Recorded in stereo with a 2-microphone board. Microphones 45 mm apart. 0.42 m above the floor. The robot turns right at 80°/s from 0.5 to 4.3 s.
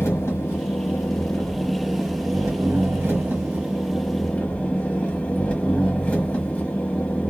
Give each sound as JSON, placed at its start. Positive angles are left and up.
{"t": 0.0, "sound": "an engine running", "azimuth_deg": 85, "distance_m": 1.3}